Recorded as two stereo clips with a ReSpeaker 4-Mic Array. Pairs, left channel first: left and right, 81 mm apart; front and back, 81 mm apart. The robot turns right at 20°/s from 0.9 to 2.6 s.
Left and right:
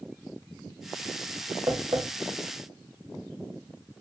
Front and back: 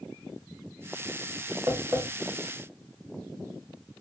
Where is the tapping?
130° right, 1.4 m; by 2.0 s 120° right, 1.4 m.